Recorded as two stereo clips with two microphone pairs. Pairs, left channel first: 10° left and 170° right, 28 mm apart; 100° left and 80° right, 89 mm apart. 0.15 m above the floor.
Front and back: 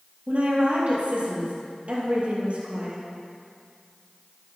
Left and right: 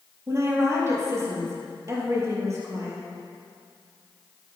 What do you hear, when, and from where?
0.3 s a woman speaking: 135° right, 3.5 m